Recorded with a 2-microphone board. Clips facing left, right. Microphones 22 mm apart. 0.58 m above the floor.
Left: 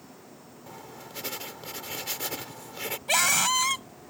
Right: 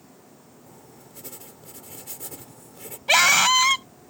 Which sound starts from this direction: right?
A scream, at 3.1 s.